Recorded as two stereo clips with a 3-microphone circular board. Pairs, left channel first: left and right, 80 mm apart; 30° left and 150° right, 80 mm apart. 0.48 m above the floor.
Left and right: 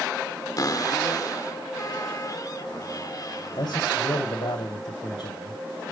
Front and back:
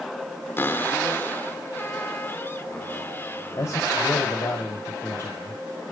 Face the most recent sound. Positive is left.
turn(degrees=80)